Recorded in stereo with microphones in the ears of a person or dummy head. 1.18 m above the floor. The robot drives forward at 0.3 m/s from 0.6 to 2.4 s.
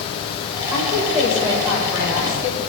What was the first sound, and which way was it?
A woman speaking, 15° right (ahead or behind).